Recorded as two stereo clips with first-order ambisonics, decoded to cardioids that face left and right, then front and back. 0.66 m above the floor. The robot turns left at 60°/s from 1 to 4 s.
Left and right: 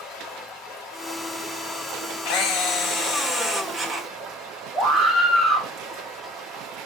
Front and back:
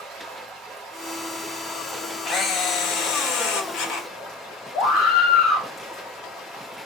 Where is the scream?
25° right, 1.4 m.